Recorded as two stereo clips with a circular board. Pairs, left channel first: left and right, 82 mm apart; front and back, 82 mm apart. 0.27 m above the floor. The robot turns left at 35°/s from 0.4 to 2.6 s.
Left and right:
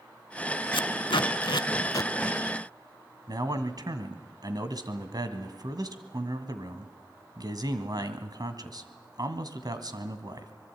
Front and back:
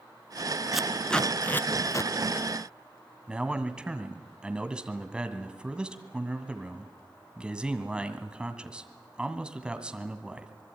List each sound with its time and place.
0.7 s tape being pulled: 95° left, 0.7 m; by 2.1 s 45° left, 0.7 m
3.3 s a man speaking: 105° right, 2 m